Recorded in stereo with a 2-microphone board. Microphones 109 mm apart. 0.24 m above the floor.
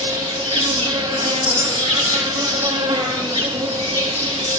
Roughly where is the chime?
Left.